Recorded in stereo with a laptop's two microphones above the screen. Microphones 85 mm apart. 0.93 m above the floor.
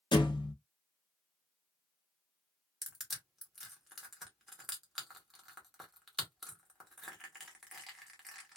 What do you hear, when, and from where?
0.1 s a thud: 65° left (ahead or behind), 0.6 m
2.8 s crushing: centre (ahead or behind), 0.9 m